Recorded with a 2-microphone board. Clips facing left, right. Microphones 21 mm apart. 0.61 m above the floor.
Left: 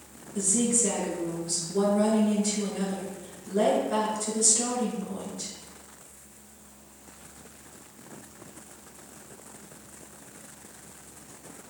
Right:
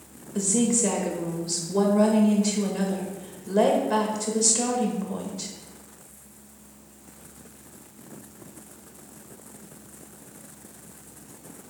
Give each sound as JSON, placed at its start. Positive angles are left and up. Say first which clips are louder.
{"t": 0.3, "sound": "a woman speaking", "louder": "right 3 dB", "side_deg": -35, "distance_m": 2.0}